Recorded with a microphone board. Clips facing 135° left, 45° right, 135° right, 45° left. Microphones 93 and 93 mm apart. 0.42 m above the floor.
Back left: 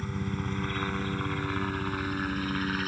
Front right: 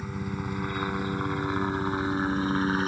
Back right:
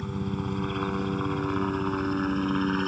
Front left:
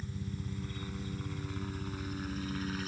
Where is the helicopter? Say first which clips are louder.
Even, back right 11 dB; 130° right; by 2.9 s 105° right.